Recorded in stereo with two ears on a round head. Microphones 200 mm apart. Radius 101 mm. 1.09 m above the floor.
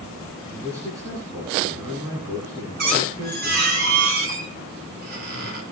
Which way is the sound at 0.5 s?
15° right (ahead or behind).